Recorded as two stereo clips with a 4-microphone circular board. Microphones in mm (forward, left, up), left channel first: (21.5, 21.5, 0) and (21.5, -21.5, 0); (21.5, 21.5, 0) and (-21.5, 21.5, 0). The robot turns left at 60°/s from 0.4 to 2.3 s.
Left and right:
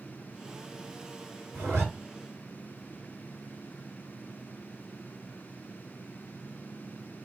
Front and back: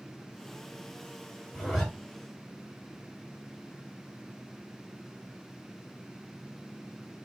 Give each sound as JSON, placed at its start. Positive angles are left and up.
{"t": 1.5, "sound": "a zipper", "azimuth_deg": -75, "distance_m": 1.6}